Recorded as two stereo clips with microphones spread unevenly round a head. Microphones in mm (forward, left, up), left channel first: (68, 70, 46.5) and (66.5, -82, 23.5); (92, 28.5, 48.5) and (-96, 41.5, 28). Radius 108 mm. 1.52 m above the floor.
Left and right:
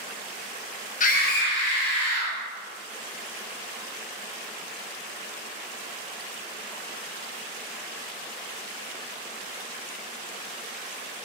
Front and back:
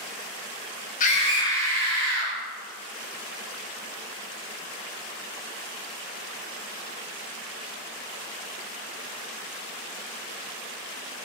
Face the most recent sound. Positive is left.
turn(degrees=85)